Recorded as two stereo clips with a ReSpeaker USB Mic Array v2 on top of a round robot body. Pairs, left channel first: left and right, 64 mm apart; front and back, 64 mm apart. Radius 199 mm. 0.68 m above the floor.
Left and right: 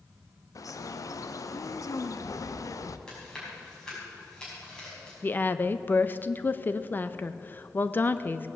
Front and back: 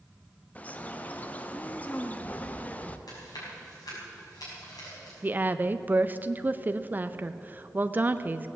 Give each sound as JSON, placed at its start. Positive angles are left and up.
{"t": 0.6, "sound": "a bird", "azimuth_deg": 65, "distance_m": 0.8}
{"t": 3.1, "sound": "chewing", "azimuth_deg": 10, "distance_m": 5.0}
{"t": 5.2, "sound": "a woman speaking", "azimuth_deg": 135, "distance_m": 0.7}